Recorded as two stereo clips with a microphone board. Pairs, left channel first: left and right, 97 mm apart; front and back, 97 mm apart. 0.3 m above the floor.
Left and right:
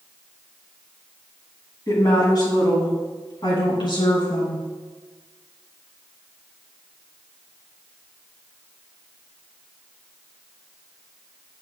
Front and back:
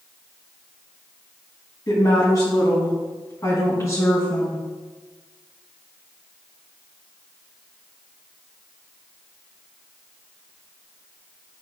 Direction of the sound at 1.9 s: 45° left.